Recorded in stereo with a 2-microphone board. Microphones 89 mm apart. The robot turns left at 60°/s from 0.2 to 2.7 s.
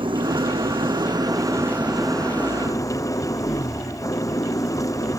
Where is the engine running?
70° right; by 5.2 s 140° left.